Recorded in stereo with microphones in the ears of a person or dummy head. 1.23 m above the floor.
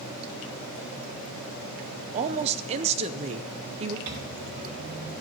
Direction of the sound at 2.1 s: 30° right (ahead or behind).